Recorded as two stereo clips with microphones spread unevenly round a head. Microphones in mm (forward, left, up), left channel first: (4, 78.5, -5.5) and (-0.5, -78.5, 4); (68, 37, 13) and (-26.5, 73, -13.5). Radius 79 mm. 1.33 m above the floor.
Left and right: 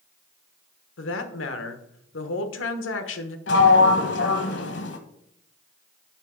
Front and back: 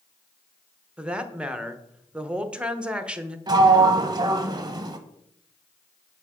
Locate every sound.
1.0 s a woman speaking: 80° left, 0.9 m
3.5 s a sliding door: 105° left, 0.9 m